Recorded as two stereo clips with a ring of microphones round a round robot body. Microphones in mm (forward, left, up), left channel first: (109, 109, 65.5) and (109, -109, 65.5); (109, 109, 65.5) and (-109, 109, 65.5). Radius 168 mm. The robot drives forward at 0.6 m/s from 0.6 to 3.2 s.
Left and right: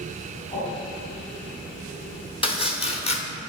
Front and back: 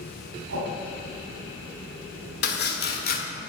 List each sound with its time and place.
0.5 s a whoosh: 170° left, 3.5 m
2.4 s chopping: 25° left, 2 m; by 3.2 s 35° left, 1.7 m